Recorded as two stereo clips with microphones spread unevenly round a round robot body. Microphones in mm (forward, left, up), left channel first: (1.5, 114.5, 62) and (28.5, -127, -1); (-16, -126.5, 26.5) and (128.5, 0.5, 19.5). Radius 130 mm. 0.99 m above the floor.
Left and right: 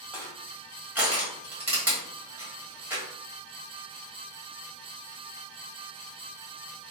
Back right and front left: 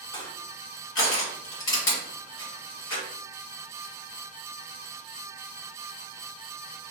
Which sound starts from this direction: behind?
Crushing, at 0.1 s.